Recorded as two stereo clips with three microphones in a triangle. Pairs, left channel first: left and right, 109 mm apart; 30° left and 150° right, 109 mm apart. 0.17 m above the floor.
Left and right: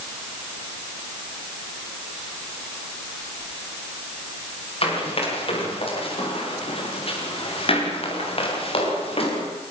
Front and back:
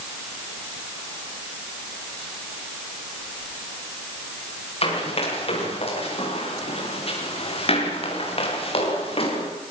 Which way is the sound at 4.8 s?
60° left.